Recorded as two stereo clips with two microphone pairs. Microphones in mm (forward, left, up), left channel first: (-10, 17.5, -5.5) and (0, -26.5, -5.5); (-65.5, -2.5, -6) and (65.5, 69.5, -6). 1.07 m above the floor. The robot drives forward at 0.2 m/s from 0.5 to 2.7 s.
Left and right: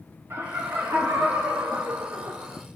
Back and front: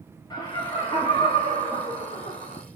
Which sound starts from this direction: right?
Laughter, at 0.3 s.